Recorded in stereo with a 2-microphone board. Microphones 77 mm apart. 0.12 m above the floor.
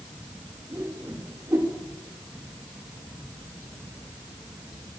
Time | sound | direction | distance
0.7 | a whoosh | 40° right (ahead or behind) | 7.5 m